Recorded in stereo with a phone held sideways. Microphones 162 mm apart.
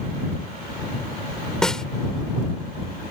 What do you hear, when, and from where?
1.6 s a snare drum: 5° left (ahead or behind)